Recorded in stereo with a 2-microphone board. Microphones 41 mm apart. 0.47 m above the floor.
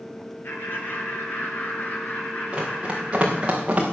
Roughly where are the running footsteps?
Right.